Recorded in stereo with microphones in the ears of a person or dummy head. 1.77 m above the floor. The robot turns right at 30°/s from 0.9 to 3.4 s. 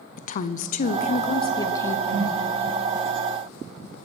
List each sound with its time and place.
0.2 s a woman speaking: 140° left, 0.7 m; by 2.0 s 170° left, 0.7 m
2.1 s a whoosh: 50° right (ahead or behind), 1.2 m; by 2.4 s 55° right (ahead or behind), 1.2 m